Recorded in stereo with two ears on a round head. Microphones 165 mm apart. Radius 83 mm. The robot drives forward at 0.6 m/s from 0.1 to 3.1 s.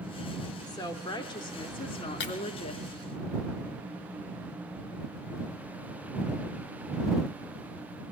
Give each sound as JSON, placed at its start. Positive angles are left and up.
{"t": 0.7, "sound": "a woman speaking", "side_deg": 20, "distance_m": 2.5}
{"t": 2.2, "sound": "breaking glass", "side_deg": 60, "distance_m": 2.5}